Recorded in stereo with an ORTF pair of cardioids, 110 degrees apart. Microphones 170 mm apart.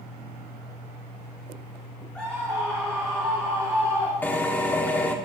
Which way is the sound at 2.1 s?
5° left.